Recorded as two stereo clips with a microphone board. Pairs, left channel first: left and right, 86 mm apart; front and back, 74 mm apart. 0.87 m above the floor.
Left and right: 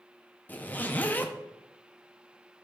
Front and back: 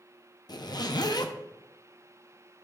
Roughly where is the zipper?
Ahead.